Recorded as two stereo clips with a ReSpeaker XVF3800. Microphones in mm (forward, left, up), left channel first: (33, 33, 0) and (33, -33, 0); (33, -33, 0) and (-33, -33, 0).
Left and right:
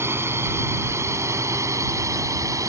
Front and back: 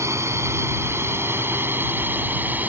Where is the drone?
140° right; by 2.7 s 120° right.